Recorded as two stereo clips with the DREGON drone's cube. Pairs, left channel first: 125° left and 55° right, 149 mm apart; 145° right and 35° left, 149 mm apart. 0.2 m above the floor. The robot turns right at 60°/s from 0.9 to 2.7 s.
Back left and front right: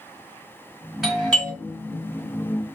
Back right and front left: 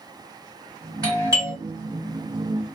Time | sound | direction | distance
1.0 | a doorbell | 30° left | 1.5 m